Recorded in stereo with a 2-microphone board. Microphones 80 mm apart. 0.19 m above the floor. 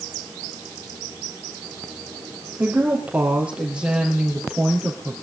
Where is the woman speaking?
25° right (ahead or behind), 5 m; by 5.2 s centre (ahead or behind), 4.5 m.